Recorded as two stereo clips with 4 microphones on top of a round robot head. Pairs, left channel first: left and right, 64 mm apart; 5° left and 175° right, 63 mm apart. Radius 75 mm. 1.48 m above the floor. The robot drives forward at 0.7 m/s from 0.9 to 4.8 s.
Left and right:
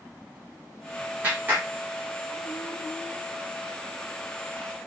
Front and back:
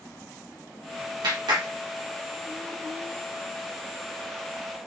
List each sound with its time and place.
1.2 s a clap: 160° right, 1.4 m; by 1.7 s 165° right, 1.7 m